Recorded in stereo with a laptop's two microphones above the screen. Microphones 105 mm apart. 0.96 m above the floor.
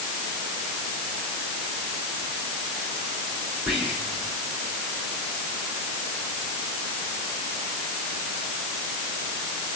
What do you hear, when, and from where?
3.7 s whispering: 5° right (ahead or behind), 3.5 m